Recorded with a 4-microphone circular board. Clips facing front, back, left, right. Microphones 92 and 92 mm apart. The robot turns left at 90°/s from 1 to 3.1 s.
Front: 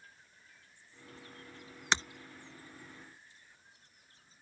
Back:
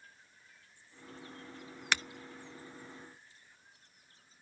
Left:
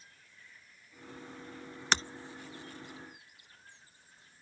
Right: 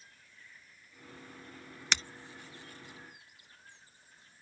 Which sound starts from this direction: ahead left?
Breaking glass, at 1.9 s.